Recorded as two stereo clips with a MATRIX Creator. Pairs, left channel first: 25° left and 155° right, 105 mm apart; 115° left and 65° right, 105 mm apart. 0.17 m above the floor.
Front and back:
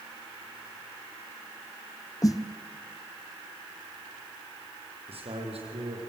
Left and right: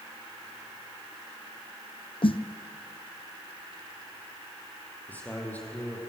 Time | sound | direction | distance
2.2 | a snare drum | 80° left | 1.4 m
5.1 | a man speaking | 175° right | 7.5 m